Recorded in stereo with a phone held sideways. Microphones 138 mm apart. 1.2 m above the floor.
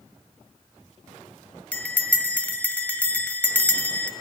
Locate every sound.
1.7 s a bell: 10° left (ahead or behind), 1.6 m